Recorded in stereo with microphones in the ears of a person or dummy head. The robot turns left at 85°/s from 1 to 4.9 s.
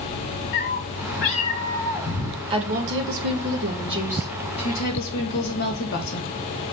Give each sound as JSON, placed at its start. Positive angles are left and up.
{"t": 0.5, "sound": "a cat meowing", "azimuth_deg": 105, "distance_m": 1.6}
{"t": 2.5, "sound": "a woman speaking", "azimuth_deg": -30, "distance_m": 1.3}